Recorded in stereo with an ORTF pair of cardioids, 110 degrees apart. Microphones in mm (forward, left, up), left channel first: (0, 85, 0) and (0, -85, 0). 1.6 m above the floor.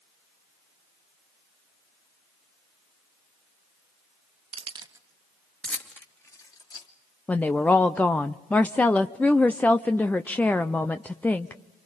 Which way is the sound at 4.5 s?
40° right.